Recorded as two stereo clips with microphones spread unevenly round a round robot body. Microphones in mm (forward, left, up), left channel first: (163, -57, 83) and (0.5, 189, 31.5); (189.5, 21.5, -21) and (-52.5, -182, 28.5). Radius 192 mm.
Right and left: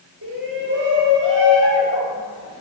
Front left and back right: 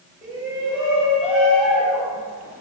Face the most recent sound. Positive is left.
turn(degrees=130)